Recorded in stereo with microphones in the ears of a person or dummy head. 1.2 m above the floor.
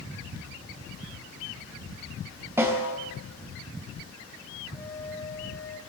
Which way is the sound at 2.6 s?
10° right (ahead or behind).